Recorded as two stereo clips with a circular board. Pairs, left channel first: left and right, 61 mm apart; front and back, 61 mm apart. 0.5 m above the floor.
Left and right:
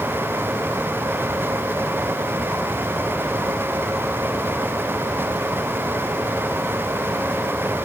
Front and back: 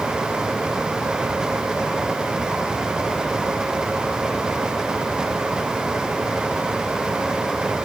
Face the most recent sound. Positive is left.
No sound to turn to.